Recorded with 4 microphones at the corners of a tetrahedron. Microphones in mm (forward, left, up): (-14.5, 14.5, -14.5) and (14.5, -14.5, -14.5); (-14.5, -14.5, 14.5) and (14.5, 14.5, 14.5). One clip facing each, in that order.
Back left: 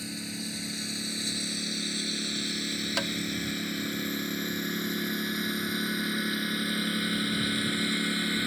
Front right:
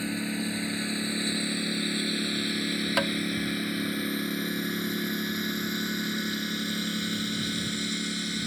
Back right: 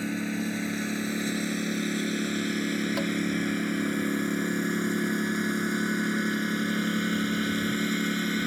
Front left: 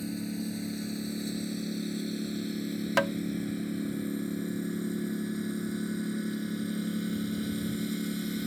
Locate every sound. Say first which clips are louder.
0.0 s a lawn mower: front right 6 dB, back right 5 dB; 110° right; by 8.5 s 160° right
3.0 s tapping: front right 5 dB, front left 2 dB; 25° left